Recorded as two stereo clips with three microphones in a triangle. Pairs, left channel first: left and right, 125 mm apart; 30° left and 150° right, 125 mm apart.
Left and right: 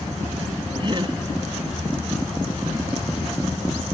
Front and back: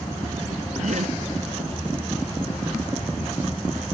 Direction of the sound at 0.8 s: 140° right.